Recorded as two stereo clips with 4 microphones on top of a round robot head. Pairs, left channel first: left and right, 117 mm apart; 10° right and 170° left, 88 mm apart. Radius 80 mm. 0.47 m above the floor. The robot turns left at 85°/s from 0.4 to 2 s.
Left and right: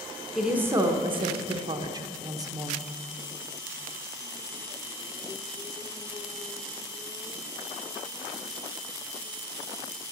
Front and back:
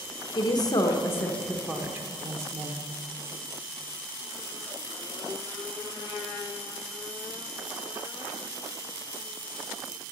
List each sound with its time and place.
0.3 s a woman speaking: 5° right, 1.0 m; by 2.8 s 140° right, 1.0 m